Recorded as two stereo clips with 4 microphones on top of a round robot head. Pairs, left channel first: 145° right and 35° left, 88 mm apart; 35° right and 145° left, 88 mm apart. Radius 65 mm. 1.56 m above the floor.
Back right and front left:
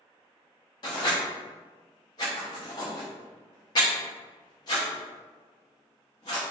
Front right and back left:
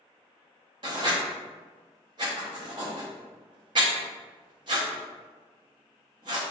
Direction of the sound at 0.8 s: Straight behind.